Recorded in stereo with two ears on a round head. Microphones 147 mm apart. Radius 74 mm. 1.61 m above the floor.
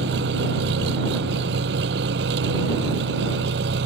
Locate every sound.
0.0 s an engine running: 70° right (ahead or behind)